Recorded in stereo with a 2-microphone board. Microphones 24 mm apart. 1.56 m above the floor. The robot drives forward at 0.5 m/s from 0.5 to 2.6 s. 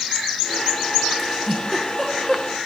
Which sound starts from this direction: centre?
A giggle, at 1.2 s.